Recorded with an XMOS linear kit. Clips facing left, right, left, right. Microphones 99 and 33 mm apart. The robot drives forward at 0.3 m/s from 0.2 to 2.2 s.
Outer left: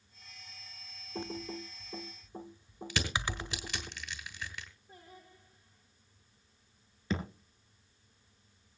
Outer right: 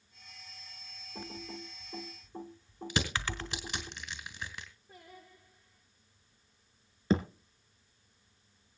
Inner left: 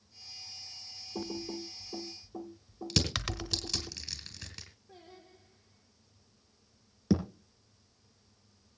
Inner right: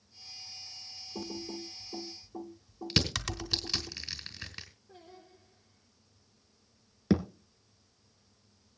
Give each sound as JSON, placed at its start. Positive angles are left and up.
{"t": 1.1, "sound": "typing on a keyboard", "side_deg": 25, "distance_m": 0.7}
{"t": 2.9, "sound": "crushing", "side_deg": -20, "distance_m": 2.5}
{"t": 4.9, "sound": "singing", "side_deg": 35, "distance_m": 8.0}
{"t": 7.1, "sound": "a thud", "side_deg": -30, "distance_m": 1.8}